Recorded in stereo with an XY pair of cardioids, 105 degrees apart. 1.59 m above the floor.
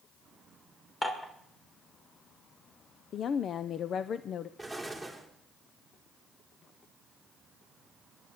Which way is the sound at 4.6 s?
5° left.